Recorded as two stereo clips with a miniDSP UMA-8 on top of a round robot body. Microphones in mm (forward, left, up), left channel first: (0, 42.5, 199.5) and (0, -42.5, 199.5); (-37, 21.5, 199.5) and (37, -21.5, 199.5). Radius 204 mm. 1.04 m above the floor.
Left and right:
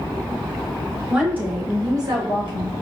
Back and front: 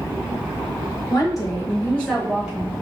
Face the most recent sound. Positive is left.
turn(degrees=-100)